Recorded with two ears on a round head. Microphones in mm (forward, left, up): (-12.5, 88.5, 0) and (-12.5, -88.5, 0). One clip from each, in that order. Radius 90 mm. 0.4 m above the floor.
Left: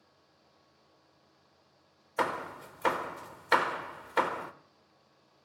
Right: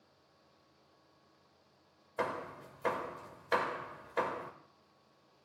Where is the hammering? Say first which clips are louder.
Left 5 dB; 40° left (ahead or behind), 0.5 m.